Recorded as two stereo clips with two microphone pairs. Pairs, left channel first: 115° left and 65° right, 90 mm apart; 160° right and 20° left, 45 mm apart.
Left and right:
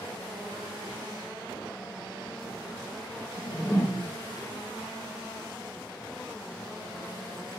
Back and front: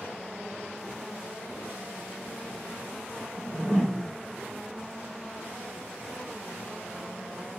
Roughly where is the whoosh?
Behind left.